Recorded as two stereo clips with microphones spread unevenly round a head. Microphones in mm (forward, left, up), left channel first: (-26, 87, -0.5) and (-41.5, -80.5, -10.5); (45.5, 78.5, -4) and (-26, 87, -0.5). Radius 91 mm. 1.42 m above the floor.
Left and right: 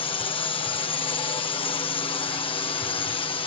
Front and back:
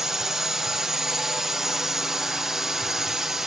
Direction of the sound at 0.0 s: 90° left.